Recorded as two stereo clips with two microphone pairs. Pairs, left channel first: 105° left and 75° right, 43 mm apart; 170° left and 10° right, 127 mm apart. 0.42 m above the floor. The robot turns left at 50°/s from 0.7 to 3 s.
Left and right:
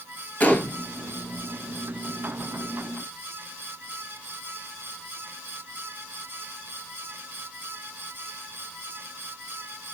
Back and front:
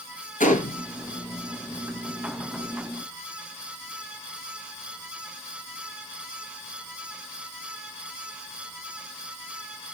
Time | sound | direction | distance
0.4 | a gunshot | 160° left | 2.5 m